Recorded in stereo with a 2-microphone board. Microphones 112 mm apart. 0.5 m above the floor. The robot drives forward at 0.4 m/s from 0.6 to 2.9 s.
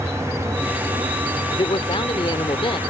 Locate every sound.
1.5 s a man speaking: 50° left (ahead or behind)